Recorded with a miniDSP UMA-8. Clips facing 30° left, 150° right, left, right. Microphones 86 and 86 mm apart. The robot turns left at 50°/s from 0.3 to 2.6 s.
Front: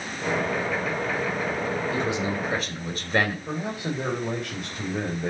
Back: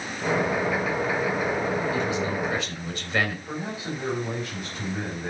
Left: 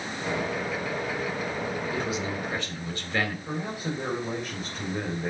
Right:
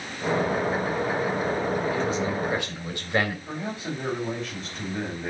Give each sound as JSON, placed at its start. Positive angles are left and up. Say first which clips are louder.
{"t": 1.9, "sound": "a man speaking", "louder": "even, right 4 dB", "azimuth_deg": 15, "distance_m": 3.0}
{"t": 3.5, "sound": "a man speaking", "louder": "front 2 dB, even", "azimuth_deg": 10, "distance_m": 4.0}